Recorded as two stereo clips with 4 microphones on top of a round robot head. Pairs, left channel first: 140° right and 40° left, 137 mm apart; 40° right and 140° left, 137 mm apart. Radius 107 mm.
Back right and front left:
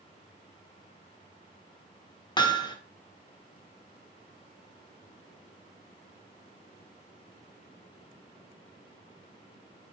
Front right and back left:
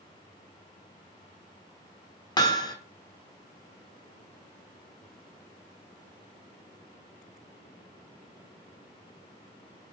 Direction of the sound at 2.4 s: 90° right.